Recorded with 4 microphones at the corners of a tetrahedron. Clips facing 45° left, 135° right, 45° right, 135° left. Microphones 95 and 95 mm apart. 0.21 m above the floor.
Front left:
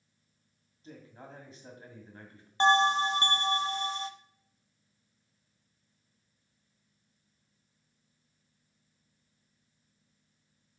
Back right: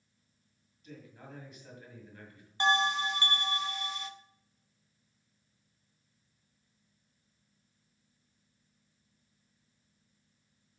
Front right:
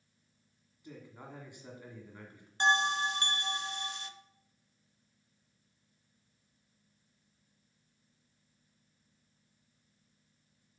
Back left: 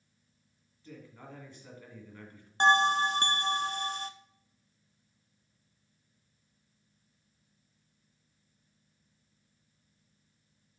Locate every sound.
0.8 s a man speaking: 15° left, 1.9 m
2.6 s a bell: 100° left, 0.6 m